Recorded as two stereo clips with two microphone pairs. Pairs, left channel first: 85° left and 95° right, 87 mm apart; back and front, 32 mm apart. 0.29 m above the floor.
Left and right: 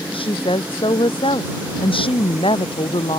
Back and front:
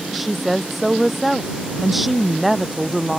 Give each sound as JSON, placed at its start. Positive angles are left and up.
{"t": 0.1, "sound": "a woman speaking", "azimuth_deg": 90}